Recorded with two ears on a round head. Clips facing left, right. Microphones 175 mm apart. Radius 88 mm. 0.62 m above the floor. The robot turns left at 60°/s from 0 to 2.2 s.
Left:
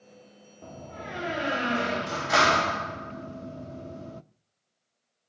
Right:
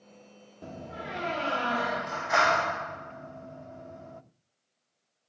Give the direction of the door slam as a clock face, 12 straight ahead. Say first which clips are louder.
Right 1 dB; 5 o'clock.